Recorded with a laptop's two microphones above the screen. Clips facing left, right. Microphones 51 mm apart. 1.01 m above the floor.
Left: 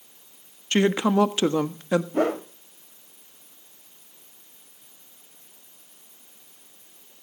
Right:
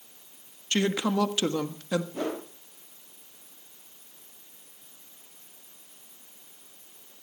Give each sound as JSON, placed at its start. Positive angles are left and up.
{"t": 0.7, "sound": "a woman speaking", "side_deg": 25, "distance_m": 1.3}
{"t": 2.1, "sound": "a whoosh", "side_deg": 55, "distance_m": 1.6}